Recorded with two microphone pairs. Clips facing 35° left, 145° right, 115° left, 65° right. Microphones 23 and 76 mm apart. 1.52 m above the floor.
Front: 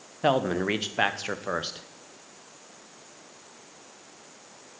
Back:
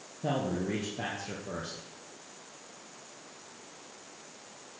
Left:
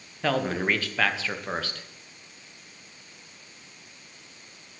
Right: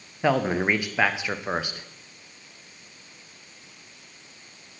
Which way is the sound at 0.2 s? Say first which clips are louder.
Front 8 dB, right 3 dB; 10° left.